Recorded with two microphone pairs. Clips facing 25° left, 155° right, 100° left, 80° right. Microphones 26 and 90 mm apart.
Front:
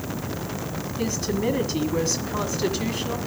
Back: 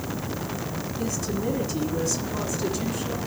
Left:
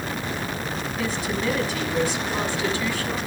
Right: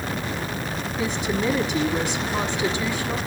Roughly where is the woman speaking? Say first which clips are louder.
Front 4 dB, right 3 dB; ahead.